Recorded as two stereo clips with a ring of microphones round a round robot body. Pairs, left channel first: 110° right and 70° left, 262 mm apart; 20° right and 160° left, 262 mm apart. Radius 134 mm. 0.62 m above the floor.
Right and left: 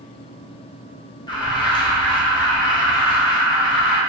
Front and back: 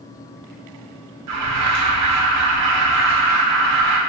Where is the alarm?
175° left, 2 m.